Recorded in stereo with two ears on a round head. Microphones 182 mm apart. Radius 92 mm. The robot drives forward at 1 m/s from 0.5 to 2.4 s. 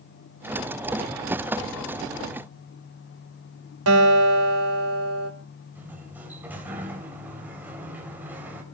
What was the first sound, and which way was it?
A guitar, 90° right.